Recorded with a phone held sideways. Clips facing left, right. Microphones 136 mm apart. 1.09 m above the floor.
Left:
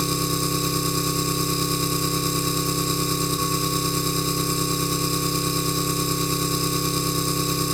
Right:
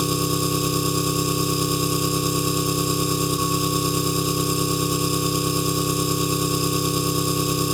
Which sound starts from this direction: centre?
An engine running, at 0.0 s.